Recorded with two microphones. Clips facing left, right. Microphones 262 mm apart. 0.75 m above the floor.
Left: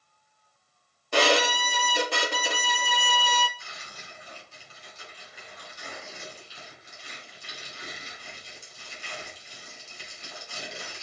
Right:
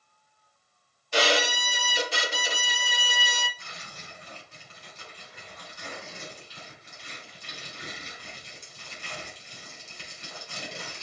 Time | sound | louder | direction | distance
1.1 | a violin | left 3 dB | 60° left (ahead or behind) | 0.6 m
3.6 | tearing paper | right 1 dB | 60° right (ahead or behind) | 3 m